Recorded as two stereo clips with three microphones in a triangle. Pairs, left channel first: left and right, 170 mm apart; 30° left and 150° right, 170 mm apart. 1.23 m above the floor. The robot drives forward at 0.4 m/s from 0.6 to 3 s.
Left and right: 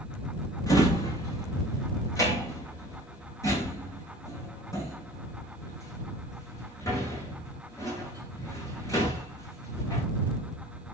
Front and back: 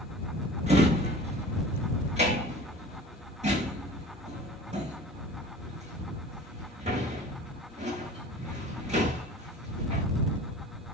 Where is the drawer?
160° left, 8 m.